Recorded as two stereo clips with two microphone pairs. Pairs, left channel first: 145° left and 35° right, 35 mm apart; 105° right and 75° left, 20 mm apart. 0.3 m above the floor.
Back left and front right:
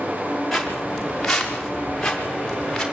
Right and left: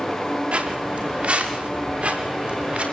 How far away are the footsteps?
About 6 m.